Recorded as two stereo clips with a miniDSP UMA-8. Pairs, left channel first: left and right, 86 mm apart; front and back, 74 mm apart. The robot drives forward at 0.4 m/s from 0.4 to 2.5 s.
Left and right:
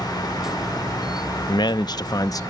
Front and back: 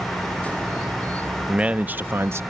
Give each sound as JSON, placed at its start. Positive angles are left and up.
{"t": 1.5, "sound": "a man speaking", "azimuth_deg": 105}